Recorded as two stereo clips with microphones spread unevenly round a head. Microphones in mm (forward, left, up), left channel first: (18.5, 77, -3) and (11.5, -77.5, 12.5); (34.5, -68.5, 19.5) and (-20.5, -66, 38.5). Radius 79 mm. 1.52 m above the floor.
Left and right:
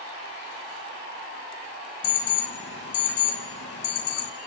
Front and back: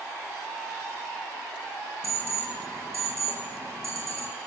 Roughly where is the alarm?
Left.